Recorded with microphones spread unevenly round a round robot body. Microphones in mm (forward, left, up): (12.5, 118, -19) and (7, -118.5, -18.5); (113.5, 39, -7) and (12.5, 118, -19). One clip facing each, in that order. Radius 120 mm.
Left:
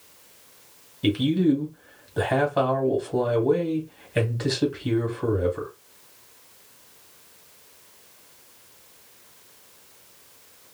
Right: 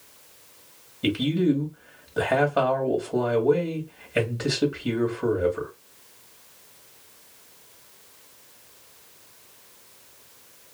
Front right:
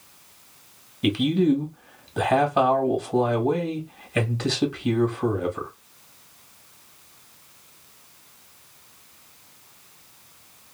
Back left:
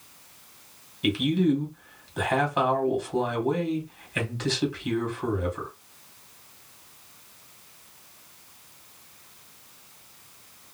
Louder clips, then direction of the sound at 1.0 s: Left 2 dB, front right 3 dB; 10° right.